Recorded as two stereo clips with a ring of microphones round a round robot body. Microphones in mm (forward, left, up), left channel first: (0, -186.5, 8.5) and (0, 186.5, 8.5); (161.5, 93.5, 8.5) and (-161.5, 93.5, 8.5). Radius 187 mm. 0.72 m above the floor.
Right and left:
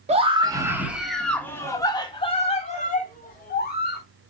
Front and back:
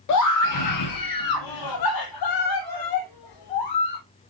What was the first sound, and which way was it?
A scream, 20° left.